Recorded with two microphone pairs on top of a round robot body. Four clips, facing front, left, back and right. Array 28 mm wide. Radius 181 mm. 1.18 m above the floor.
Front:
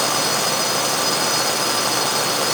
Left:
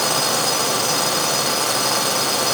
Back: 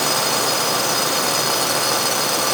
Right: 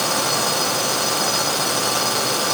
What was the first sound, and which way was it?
Only background noise.